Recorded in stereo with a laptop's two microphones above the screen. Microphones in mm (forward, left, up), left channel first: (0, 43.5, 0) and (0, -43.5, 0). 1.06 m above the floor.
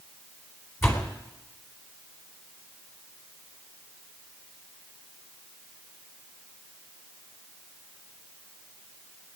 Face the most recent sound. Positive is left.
turn(degrees=30)  # may be behind; listen again after turning